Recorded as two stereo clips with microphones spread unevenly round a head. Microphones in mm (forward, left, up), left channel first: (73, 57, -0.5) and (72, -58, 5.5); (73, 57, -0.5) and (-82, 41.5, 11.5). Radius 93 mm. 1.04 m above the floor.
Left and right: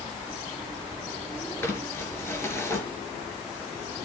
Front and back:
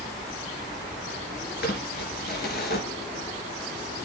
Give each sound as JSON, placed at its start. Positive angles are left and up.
{"t": 1.6, "sound": "crumpling", "azimuth_deg": 20, "distance_m": 3.5}